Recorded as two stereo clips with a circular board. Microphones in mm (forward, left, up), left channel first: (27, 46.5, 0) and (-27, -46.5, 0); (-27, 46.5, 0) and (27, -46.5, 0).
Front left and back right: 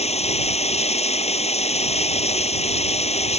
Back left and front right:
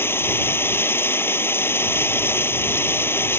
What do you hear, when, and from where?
0.0 s running water: 50° left